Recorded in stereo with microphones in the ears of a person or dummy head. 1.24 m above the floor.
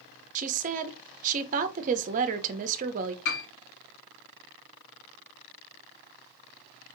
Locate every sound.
0.3 s a woman speaking: 40° right (ahead or behind), 0.6 m
3.2 s a piano: 60° left (ahead or behind), 2 m